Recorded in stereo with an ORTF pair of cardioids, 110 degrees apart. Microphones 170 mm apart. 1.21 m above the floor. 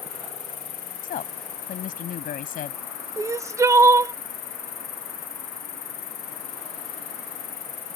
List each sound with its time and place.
0.0 s an insect: 60° left
1.0 s a woman speaking: 55° left
3.2 s crying: 20° right